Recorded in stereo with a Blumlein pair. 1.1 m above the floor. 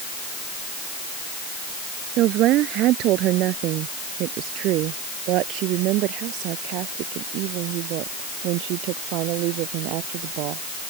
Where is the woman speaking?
35° right; by 10.6 s 40° right.